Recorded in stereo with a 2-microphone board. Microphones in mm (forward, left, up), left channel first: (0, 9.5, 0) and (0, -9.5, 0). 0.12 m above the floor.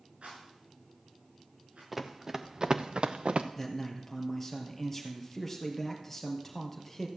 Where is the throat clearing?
I don't hear throat clearing.